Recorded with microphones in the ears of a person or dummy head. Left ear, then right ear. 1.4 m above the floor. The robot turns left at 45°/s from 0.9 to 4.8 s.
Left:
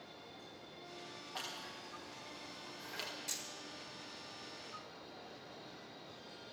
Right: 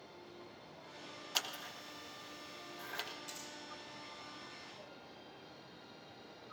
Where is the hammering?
10° left (ahead or behind), 1.1 m; by 3.4 s 15° left (ahead or behind), 1.1 m.